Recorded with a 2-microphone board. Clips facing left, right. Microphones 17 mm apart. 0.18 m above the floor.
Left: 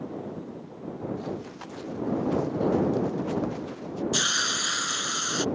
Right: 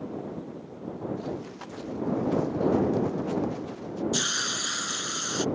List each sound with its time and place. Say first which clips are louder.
1.2 s running footsteps: even; 5° left (ahead or behind); by 4.0 s 10° left (ahead or behind)
4.1 s a hiss: left 4 dB; 15° left (ahead or behind)